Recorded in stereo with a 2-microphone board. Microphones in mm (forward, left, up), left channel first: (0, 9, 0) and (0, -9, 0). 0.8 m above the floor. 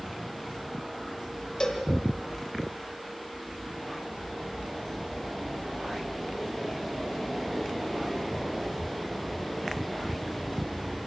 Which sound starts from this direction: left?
A cowbell, at 1.6 s.